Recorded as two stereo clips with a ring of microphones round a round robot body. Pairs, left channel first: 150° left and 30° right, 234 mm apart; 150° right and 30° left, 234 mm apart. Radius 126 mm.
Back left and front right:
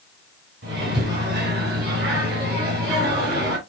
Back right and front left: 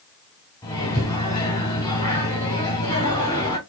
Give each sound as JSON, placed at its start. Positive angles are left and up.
{"t": 0.6, "sound": "a microwave", "azimuth_deg": -75, "distance_m": 3.5}